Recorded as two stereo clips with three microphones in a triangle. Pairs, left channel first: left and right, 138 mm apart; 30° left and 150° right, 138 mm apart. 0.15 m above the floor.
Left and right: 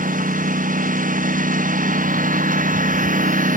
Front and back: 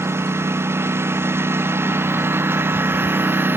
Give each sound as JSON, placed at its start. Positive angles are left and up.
{"t": 0.0, "sound": "a lawn mower", "azimuth_deg": -80}